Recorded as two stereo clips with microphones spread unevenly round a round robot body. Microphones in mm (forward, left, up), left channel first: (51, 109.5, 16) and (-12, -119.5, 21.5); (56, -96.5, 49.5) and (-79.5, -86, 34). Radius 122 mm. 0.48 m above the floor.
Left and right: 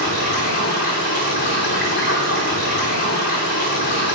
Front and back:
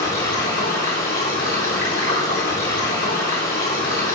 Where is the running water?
30° left, 3.5 m.